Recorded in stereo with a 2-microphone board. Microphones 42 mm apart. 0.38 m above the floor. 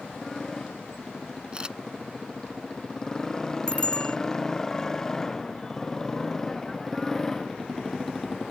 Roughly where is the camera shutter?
Right.